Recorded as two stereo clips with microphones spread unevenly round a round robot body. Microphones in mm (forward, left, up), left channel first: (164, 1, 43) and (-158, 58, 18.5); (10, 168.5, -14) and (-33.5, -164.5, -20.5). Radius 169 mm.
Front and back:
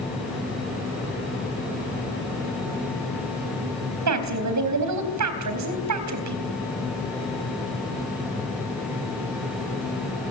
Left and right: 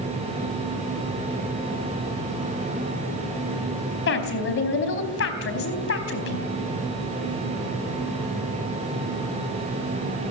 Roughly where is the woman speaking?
Behind left.